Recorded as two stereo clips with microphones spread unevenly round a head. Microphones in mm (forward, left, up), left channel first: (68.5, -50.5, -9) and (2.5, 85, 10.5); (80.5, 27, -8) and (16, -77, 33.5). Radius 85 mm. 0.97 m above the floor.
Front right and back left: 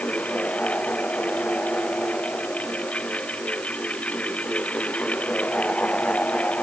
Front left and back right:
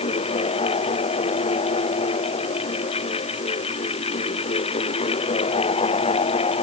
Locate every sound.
0.0 s a fan: 20° left